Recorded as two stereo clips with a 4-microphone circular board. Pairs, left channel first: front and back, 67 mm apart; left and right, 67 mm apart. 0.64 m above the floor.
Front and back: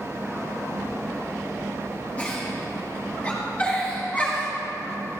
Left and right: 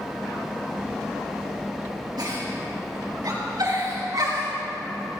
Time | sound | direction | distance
2.2 | a giggle | 70° right | 5.5 m